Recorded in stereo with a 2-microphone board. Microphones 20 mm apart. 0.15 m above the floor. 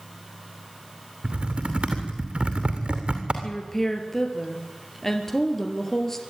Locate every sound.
1.2 s typing on a keyboard: 60° right (ahead or behind), 2.5 m
3.4 s a woman speaking: 20° left (ahead or behind), 3 m